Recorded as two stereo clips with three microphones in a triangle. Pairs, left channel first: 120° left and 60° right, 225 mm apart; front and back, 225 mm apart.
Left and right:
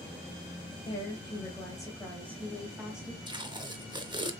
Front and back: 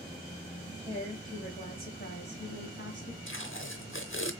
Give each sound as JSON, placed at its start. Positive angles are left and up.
{"t": 0.8, "sound": "a woman speaking", "azimuth_deg": 60, "distance_m": 2.0}
{"t": 3.3, "sound": "tape being pulled", "azimuth_deg": 10, "distance_m": 0.6}